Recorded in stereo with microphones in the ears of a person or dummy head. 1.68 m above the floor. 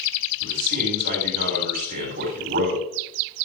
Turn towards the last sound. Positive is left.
turn(degrees=-45)  # may be behind; listen again after turning